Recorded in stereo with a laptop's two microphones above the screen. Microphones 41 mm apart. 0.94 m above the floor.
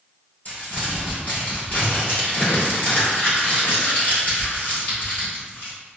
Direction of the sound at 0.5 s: 45° left (ahead or behind).